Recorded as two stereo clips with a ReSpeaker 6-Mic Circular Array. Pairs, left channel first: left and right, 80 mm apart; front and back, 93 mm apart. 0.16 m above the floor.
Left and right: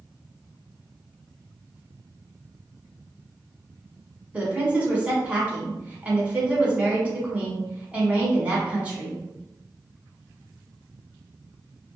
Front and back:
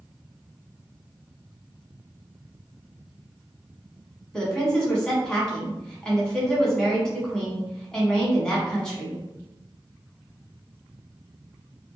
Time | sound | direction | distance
4.3 | a woman speaking | 65° right | 1.0 m